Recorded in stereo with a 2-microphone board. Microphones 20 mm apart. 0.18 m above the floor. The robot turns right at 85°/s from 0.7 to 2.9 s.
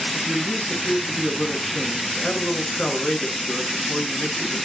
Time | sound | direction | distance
0.1 | a man speaking | 55° right | 1.9 m